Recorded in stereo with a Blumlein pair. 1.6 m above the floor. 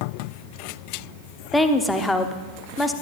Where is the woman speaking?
5° left, 0.8 m.